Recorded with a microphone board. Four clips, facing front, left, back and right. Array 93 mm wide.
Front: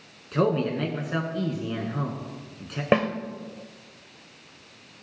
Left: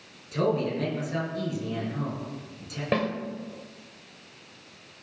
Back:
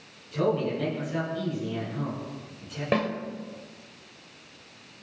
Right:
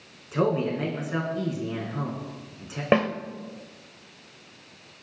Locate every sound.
0.3 s a man speaking: 30° right, 3.5 m
2.9 s a snare drum: 50° right, 1.3 m